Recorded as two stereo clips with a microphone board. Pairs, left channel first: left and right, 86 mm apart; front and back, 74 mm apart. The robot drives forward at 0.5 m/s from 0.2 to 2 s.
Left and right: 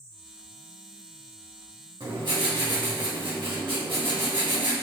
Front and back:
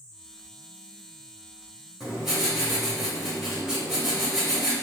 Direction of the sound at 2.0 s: 95° right.